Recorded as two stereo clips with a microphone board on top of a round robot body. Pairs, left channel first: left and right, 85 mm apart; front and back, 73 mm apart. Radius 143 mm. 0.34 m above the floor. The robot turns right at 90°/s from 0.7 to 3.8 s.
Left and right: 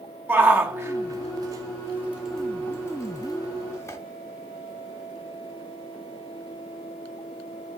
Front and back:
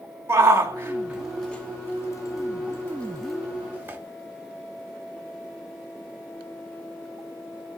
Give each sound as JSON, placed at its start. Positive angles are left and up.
{"t": 0.3, "sound": "a shout", "azimuth_deg": -145, "distance_m": 1.1}